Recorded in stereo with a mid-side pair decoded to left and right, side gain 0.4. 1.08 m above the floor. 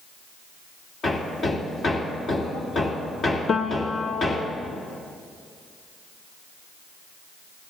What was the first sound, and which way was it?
Hammering, 60° left.